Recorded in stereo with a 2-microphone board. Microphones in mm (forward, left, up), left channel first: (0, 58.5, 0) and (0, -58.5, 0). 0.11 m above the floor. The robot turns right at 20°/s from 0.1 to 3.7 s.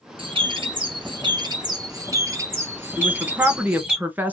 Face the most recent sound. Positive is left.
turn(degrees=-15)  # may be behind; listen again after turning